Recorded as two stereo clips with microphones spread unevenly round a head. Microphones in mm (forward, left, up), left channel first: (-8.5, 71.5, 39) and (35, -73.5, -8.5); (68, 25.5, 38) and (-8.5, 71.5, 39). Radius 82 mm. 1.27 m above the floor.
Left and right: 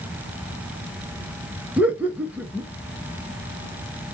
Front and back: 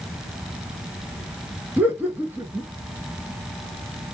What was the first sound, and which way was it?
Laughter, 140° right.